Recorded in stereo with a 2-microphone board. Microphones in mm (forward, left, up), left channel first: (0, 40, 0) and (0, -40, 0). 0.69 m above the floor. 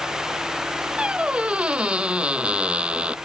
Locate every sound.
1.0 s a squeak: 15° right (ahead or behind)